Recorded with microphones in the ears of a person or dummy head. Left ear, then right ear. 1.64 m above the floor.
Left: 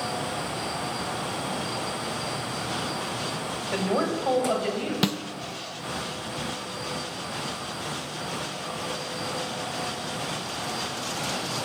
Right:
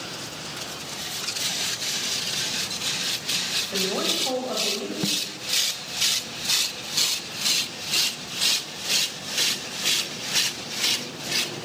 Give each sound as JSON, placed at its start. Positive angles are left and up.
{"t": 3.7, "sound": "a woman speaking", "side_deg": 15, "distance_m": 6.5}
{"t": 5.0, "sound": "a snare drum", "side_deg": 35, "distance_m": 0.9}